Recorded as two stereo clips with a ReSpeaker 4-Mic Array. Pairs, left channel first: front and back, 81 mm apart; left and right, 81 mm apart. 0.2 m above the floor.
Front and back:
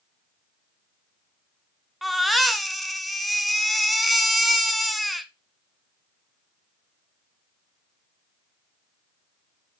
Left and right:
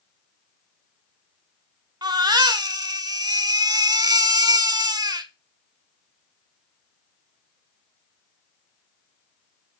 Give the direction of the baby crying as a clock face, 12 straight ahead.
3 o'clock.